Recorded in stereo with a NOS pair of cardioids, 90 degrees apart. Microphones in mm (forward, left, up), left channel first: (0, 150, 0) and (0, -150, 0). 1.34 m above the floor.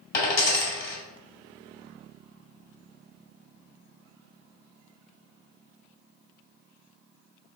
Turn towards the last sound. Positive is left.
turn(degrees=40)